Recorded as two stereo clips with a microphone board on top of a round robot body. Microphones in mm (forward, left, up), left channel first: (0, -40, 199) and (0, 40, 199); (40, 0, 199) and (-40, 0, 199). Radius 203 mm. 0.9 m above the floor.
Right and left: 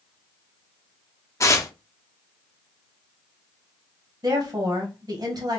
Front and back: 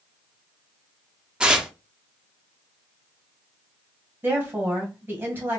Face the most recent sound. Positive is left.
turn(degrees=120)